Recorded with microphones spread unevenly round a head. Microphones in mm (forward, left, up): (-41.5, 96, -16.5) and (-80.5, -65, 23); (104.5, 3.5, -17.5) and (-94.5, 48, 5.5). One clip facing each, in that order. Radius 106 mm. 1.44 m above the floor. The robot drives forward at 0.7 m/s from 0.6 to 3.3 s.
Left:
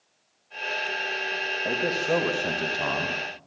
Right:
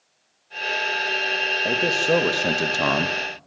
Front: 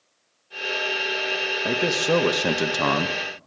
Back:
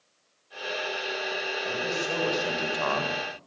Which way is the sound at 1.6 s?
35° right.